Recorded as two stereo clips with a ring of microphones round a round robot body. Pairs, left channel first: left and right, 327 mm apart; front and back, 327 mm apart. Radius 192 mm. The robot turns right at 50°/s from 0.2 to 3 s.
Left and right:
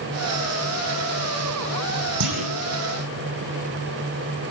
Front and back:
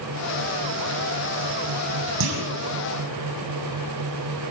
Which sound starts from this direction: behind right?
A clunk, at 2.2 s.